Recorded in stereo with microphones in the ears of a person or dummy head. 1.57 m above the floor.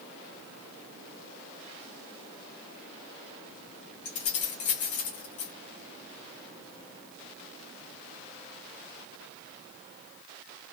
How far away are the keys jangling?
About 0.9 m.